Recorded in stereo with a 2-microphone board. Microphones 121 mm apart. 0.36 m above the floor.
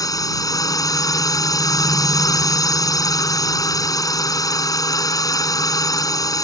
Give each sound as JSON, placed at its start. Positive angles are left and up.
{"t": 0.0, "sound": "a drone", "side_deg": 30}